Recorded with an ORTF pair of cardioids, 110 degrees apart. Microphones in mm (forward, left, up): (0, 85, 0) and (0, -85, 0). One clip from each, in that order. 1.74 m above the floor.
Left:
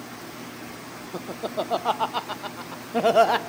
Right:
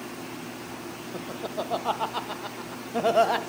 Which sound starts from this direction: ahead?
Laughter, at 1.1 s.